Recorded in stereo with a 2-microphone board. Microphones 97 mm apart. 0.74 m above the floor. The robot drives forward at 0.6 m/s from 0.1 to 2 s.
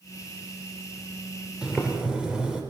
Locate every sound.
1.6 s boiling: 10° right (ahead or behind), 2.5 m